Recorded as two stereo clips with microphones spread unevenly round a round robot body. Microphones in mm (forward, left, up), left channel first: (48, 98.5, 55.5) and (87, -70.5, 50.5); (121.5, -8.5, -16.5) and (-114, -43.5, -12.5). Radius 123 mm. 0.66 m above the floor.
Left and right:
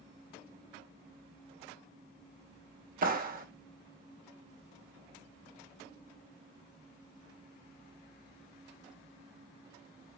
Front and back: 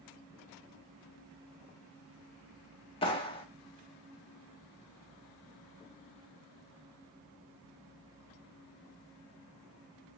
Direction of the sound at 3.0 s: 55° right.